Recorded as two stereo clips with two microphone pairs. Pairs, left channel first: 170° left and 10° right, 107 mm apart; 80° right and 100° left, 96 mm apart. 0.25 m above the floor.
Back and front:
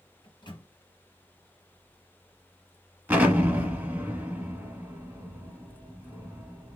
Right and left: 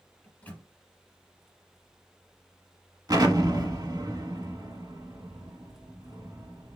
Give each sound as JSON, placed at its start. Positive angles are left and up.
{"t": 0.2, "sound": "a microwave", "azimuth_deg": -150, "distance_m": 2.0}
{"t": 3.1, "sound": "an explosion", "azimuth_deg": 65, "distance_m": 1.1}